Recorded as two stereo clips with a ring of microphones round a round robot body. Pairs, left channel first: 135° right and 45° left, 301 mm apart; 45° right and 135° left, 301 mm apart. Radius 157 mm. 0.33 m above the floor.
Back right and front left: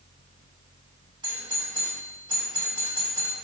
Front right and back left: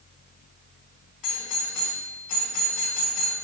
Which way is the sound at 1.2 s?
30° right.